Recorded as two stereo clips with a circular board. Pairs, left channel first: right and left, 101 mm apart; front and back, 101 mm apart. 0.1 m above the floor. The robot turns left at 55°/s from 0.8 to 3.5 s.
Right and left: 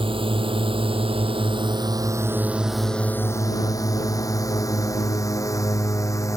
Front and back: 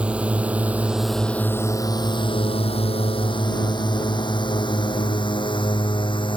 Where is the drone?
100° left; by 6.4 s 35° right.